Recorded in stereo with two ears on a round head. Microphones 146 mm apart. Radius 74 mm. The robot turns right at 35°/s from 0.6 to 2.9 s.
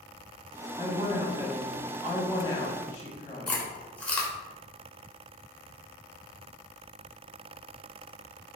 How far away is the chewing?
About 0.7 m.